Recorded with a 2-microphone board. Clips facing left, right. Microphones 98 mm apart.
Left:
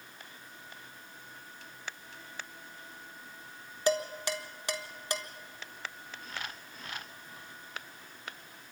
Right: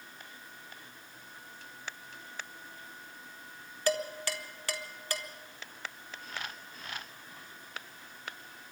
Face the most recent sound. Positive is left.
turn(degrees=20)  # may be behind; listen again after turning